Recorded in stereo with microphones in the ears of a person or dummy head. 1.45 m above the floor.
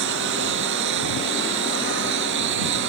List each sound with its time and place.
0.0 s a lawn mower: 65° right (ahead or behind)